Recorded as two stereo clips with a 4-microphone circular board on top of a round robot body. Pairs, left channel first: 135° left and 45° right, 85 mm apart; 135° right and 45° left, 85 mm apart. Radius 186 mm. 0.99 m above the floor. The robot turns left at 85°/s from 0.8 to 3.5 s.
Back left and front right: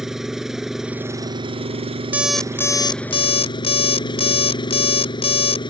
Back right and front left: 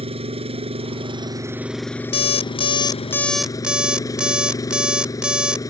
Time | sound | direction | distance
0.0 | an engine running | 40° left | ?
2.1 | an alarm clock | 115° right | ?